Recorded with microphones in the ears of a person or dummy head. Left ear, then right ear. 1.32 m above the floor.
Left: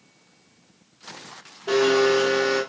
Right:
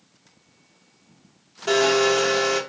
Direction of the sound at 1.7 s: 65° right (ahead or behind).